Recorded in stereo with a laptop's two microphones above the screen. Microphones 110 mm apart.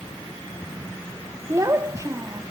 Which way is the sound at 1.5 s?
30° right (ahead or behind).